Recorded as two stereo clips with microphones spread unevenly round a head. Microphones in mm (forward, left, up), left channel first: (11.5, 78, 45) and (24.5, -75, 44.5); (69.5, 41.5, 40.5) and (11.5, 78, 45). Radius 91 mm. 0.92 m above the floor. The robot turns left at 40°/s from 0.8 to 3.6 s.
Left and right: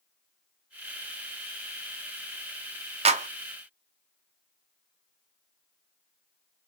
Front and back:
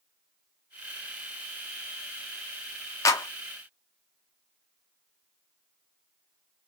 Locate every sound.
3.0 s a clap: 50° right, 0.9 m; by 3.3 s 55° right, 0.9 m